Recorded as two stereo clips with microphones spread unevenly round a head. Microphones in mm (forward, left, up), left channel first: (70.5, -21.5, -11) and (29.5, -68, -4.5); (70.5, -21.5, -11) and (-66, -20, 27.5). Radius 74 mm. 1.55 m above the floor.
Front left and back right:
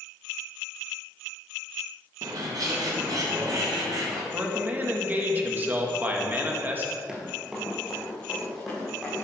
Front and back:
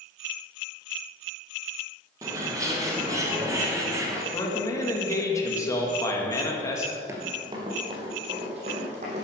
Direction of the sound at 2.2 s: 110° right.